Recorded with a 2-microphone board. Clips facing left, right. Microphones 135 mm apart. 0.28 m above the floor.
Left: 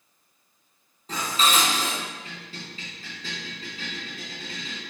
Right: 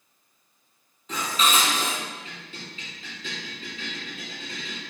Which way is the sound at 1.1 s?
40° left (ahead or behind).